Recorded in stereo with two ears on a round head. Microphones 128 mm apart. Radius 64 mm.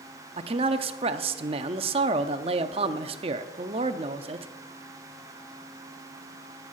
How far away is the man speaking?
About 0.6 m.